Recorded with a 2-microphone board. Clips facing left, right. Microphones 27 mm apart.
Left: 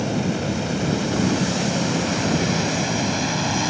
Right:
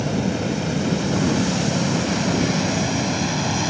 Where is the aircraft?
Centre (ahead or behind); by 3.7 s 10° left (ahead or behind).